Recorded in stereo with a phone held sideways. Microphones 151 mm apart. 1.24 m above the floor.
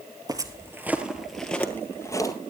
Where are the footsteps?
25° right (ahead or behind), 1.5 m; by 2.3 s 25° left (ahead or behind), 1.7 m.